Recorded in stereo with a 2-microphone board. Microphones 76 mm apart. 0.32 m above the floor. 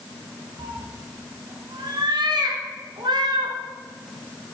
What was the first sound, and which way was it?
A cat meowing, 75° right (ahead or behind).